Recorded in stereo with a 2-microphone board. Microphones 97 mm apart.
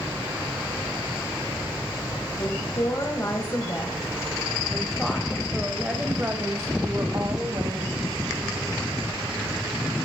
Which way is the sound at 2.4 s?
35° left (ahead or behind).